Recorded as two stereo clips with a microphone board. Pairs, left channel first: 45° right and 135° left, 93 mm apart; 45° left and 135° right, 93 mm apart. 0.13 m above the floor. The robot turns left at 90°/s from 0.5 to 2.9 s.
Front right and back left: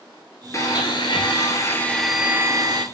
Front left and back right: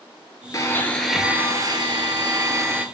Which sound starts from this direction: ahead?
A blender, at 0.5 s.